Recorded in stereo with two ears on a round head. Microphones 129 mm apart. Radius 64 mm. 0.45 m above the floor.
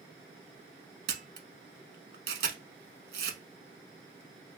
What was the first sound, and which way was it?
A camera shutter, 75° right (ahead or behind).